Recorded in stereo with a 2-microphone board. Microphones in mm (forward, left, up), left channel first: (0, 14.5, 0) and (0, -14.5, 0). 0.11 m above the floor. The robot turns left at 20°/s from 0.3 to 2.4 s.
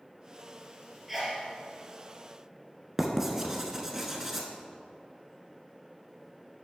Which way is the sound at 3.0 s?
15° right (ahead or behind).